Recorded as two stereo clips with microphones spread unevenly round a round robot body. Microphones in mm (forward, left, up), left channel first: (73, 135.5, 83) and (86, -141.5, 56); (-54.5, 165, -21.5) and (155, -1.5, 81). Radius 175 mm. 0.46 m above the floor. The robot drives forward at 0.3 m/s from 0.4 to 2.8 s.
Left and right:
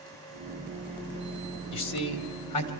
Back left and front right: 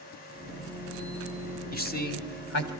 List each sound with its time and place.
1.7 s a man speaking: 95° left, 2.5 m; by 2.7 s 100° left, 2.5 m